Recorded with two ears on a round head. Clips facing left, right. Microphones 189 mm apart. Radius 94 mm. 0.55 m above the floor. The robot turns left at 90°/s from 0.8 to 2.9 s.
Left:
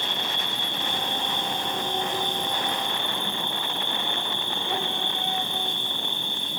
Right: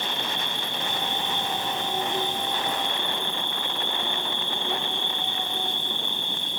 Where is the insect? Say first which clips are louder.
Right 1 dB; 65° right, 2.0 m; by 6.6 s 105° left, 2.0 m.